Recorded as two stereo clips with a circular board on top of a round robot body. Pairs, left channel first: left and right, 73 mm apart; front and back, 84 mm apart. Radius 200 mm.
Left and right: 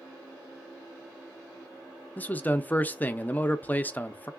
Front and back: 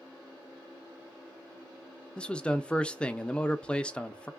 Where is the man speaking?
60° left, 0.7 m.